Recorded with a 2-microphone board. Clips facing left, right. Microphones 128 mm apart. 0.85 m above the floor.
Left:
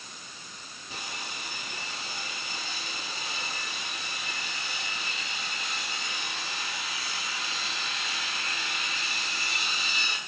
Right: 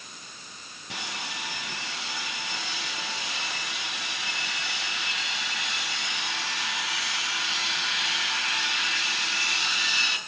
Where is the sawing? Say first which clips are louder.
Right 3 dB; 85° right, 5.5 m.